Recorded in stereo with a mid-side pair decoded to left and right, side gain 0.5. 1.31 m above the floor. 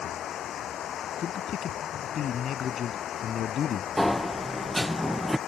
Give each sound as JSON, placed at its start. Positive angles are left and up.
{"t": 0.0, "sound": "running water", "azimuth_deg": 60}
{"t": 1.2, "sound": "a man speaking", "azimuth_deg": 55}
{"t": 4.0, "sound": "a sliding door", "azimuth_deg": 15}